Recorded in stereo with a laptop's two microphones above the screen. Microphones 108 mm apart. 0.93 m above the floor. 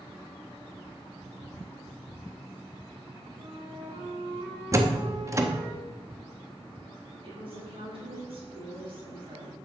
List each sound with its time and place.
3.4 s a flute: 75° right (ahead or behind), 4 m
4.7 s a door slam: 30° right (ahead or behind), 0.7 m
7.2 s a woman speaking: 60° right (ahead or behind), 3.5 m